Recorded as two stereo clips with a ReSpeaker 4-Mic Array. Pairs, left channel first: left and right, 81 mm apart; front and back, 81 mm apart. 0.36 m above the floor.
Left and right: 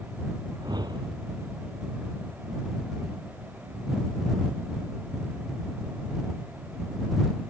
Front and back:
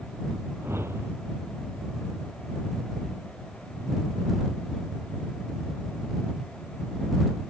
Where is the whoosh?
120° right.